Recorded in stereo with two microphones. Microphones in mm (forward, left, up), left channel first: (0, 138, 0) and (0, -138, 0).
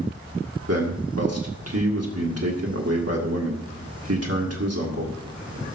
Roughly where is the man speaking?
Right.